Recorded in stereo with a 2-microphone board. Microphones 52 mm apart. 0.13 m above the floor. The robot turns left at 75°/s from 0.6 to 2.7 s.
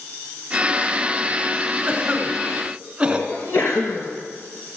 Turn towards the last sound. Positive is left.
turn(degrees=45)  # may be behind; listen again after turning